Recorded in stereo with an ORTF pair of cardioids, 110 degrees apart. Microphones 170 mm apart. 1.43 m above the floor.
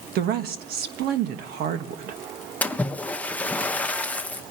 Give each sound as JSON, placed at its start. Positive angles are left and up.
{"t": 0.1, "sound": "a woman speaking", "azimuth_deg": -70, "distance_m": 1.4}
{"t": 2.6, "sound": "a splash", "azimuth_deg": 10, "distance_m": 0.7}